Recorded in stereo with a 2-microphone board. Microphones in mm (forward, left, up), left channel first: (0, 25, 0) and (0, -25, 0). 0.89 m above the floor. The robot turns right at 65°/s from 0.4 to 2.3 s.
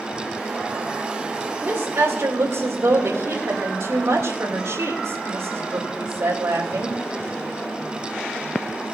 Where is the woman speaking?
135° right, 2.5 m; by 7.0 s 90° right, 2.5 m.